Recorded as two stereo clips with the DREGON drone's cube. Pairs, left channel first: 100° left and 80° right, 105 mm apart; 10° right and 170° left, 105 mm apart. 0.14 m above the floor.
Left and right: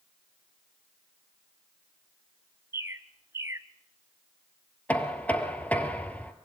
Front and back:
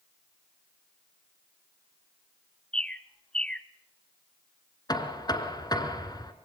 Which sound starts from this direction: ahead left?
Knocking, at 4.9 s.